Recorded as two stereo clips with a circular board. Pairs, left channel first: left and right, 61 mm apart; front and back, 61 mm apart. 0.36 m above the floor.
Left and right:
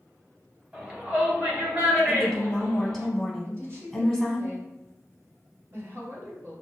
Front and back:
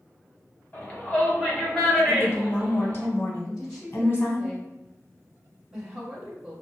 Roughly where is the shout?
Ahead right.